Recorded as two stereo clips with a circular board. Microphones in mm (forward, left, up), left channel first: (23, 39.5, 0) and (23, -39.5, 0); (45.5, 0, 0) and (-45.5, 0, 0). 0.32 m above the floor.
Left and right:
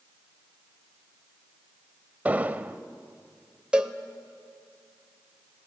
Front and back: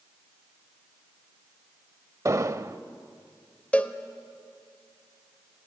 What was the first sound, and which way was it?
An explosion, 145° right.